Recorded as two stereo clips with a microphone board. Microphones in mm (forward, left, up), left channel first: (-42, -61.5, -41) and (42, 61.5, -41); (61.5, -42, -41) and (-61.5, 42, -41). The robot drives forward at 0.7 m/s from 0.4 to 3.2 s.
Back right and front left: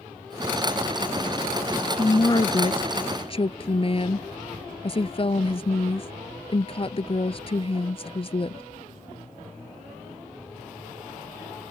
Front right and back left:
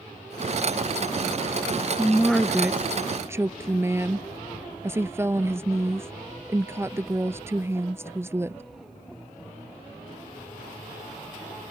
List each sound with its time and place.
2.0 s a woman speaking: 100° right; by 8.6 s 150° right